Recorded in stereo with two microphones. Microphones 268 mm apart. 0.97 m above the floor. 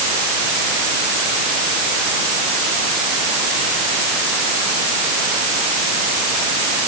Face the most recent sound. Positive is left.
No sound to turn to.